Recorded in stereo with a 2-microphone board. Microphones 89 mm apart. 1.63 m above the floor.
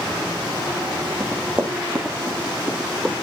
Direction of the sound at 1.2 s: 20° right (ahead or behind).